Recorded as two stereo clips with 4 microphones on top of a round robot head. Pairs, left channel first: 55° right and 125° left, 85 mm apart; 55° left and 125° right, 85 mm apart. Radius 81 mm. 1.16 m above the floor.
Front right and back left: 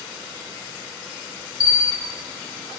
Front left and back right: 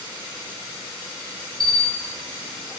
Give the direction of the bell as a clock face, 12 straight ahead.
1 o'clock.